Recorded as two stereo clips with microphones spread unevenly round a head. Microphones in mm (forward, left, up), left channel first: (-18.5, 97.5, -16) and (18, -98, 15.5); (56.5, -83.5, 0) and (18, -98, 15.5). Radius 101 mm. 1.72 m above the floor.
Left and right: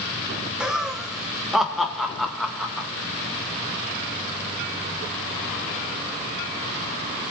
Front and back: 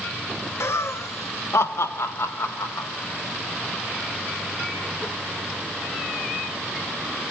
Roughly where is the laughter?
Ahead.